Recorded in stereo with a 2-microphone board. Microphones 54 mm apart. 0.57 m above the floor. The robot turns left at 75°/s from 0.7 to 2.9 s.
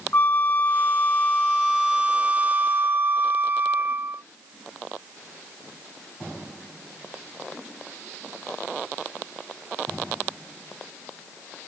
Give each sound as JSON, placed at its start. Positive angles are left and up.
{"t": 0.1, "sound": "a flute", "azimuth_deg": 85}